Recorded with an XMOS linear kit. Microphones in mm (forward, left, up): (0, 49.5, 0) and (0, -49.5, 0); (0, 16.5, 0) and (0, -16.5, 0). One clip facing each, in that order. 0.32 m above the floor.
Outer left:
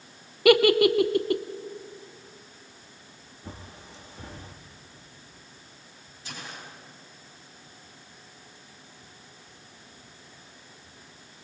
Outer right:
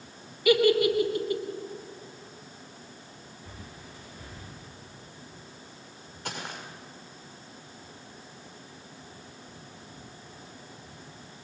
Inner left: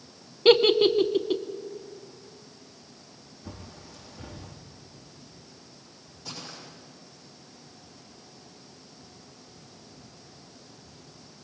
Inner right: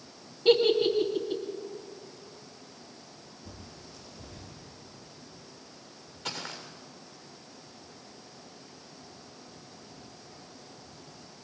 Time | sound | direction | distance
0.5 | a giggle | 70° left (ahead or behind) | 0.9 m
3.4 | a bird | 90° left | 5 m
6.2 | footsteps | 55° right (ahead or behind) | 6.5 m